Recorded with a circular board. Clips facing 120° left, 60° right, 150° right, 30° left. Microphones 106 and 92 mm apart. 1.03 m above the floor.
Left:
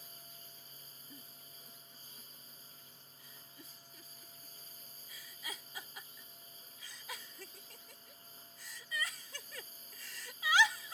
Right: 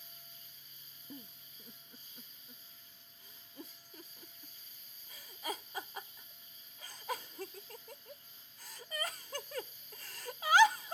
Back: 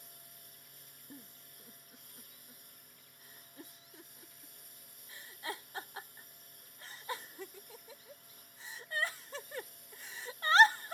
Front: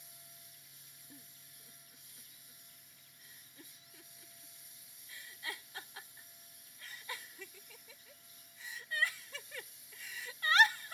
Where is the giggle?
95° right.